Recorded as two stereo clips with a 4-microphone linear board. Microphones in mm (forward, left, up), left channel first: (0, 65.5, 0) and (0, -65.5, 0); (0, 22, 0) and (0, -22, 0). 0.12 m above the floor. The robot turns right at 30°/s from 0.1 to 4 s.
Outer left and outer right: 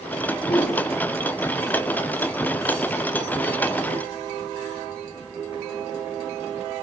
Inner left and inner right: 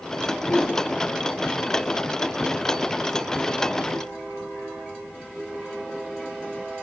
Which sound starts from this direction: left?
A whoosh, at 0.4 s.